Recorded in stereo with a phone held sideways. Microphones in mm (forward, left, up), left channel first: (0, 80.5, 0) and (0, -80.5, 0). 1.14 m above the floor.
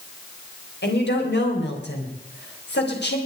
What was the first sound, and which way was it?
A woman speaking, 85° left.